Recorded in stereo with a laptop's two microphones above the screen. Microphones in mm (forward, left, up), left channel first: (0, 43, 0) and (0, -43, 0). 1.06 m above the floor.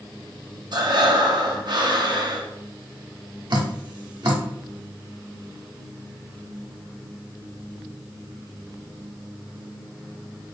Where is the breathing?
55° right (ahead or behind), 0.6 m.